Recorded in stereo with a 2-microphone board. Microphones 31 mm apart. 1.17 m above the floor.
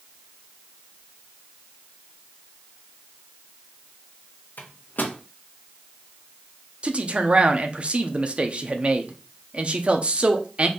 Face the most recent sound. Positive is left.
turn(degrees=-40)  # may be behind; listen again after turning